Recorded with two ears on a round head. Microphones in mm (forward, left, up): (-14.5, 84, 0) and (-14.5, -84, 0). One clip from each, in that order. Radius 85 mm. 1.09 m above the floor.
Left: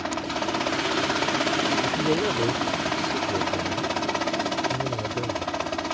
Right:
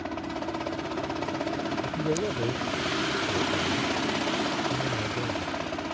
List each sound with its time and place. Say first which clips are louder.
0.0 s a helicopter: left 5 dB; 50° left (ahead or behind)
1.8 s a man speaking: left 5 dB; 85° left